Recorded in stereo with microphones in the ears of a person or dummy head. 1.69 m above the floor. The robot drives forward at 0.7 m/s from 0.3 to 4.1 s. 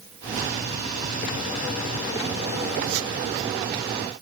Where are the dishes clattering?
No dishes clattering in this recording.